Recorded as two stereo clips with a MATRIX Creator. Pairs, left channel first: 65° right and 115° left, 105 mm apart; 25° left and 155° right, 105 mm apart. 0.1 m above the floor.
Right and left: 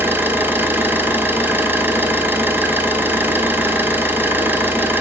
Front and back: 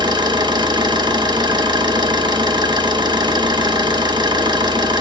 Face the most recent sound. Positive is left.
turn(degrees=175)